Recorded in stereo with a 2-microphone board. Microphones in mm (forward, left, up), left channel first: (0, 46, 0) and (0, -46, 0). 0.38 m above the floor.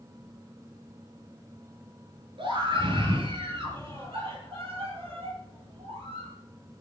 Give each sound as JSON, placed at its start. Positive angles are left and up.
{"t": 2.4, "sound": "a scream", "side_deg": -65, "distance_m": 6.5}